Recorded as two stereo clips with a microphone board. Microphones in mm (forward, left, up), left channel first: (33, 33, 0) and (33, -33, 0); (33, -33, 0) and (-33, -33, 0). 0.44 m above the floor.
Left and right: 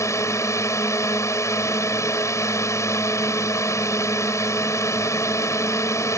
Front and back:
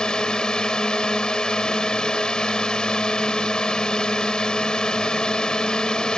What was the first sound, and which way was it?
A drone, 75° left.